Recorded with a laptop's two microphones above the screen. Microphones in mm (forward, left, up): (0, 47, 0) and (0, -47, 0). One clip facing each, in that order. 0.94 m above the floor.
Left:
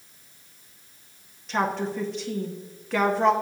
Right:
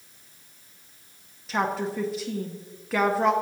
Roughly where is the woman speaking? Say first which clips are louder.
Left 1 dB; centre.